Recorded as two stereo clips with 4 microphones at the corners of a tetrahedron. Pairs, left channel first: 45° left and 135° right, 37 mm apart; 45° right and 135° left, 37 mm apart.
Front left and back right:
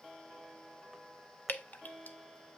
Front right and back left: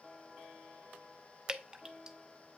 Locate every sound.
1.5 s dripping: 65° left, 0.6 m